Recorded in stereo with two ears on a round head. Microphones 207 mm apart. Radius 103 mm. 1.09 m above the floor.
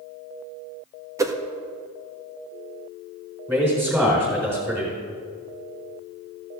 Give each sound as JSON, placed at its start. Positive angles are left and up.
{"t": 1.2, "sound": "a whoosh", "side_deg": -15, "distance_m": 0.7}
{"t": 3.5, "sound": "a man speaking", "side_deg": -10, "distance_m": 4.5}